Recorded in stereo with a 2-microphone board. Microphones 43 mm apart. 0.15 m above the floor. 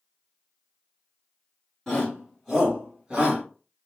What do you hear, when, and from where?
1.9 s a shout: 5° left (ahead or behind), 1.6 m; by 3.4 s 25° right (ahead or behind), 1.5 m